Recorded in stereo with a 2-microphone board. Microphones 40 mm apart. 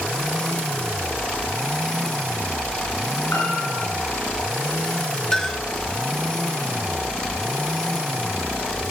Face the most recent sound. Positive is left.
turn(degrees=15)  # may be behind; listen again after turning